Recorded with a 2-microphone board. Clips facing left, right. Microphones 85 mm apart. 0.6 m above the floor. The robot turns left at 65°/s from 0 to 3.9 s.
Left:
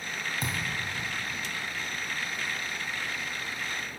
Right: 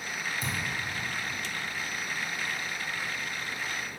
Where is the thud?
75° left (ahead or behind), 1.7 m; by 0.7 s 60° left (ahead or behind), 1.7 m.